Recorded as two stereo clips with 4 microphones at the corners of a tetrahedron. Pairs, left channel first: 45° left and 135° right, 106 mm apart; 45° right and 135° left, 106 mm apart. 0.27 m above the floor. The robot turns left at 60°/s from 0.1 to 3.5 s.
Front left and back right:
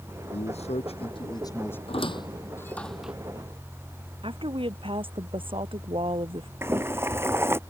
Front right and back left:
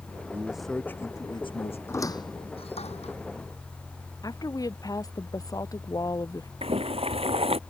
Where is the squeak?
20° left; by 3.1 s 55° right.